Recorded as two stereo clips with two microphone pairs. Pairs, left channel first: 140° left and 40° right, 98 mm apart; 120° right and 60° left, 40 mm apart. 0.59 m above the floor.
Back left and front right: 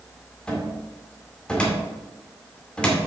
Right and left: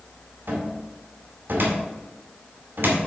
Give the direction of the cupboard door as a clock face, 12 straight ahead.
10 o'clock.